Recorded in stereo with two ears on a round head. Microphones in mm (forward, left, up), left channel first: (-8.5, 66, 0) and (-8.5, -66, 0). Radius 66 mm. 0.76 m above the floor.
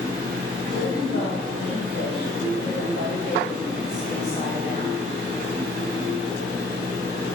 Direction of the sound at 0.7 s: 55° left (ahead or behind).